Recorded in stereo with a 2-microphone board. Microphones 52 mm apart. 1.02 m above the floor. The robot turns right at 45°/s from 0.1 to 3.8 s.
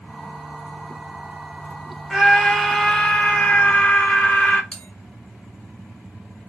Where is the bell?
10° left (ahead or behind), 1.0 m.